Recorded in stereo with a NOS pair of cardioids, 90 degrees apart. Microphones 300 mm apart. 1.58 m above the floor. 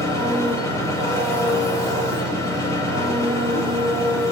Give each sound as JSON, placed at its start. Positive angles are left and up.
{"t": 0.0, "sound": "an engine running", "azimuth_deg": 10, "distance_m": 6.0}